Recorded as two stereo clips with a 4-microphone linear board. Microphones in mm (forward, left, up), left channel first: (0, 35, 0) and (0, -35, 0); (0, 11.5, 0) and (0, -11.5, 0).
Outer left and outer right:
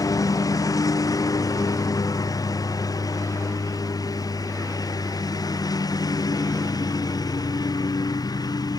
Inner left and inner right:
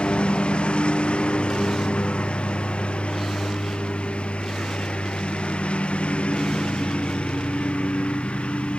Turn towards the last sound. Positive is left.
turn(degrees=60)  # may be behind; listen again after turning